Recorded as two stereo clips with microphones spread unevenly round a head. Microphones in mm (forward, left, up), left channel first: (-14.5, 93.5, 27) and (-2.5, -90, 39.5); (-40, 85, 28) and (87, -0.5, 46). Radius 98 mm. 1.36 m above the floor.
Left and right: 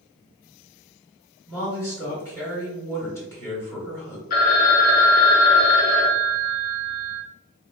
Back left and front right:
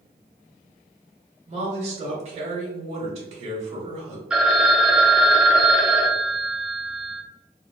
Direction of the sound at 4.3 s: 45° left.